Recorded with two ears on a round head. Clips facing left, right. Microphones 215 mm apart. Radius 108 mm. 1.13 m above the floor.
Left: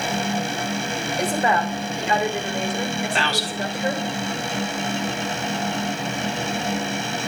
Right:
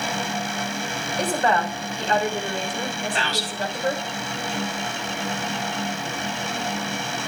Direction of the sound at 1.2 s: 10° left (ahead or behind).